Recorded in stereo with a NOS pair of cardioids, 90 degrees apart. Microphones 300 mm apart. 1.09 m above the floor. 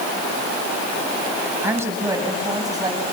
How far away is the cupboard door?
No cupboard door in this recording.